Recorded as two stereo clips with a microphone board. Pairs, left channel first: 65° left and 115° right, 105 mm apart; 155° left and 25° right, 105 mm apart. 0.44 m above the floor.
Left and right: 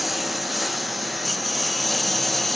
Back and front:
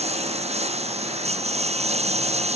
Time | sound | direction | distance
0.0 | a lawn mower | 20° right | ?